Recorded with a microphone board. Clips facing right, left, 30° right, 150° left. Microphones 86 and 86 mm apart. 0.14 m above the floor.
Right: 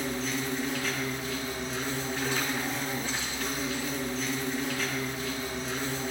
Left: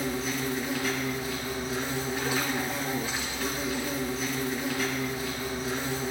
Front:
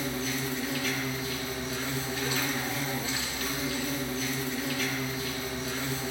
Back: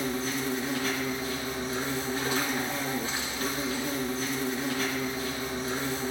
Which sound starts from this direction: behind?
An insect, at 0.0 s.